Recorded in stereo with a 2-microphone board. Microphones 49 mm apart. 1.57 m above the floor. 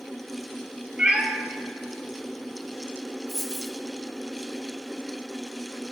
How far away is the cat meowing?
About 0.9 m.